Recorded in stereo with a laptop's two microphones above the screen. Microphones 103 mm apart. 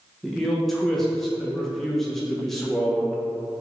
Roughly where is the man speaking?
Centre.